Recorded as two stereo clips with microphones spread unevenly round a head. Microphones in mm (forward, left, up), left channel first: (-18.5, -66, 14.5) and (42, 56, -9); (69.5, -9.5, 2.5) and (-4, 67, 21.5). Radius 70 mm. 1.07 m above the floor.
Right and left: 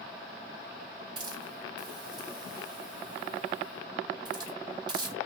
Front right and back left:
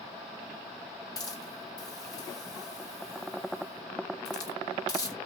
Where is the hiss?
5° left, 1.9 m.